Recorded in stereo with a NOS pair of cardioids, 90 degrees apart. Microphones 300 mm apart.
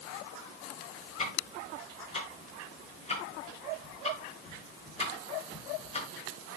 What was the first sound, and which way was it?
Ticking, 20° left.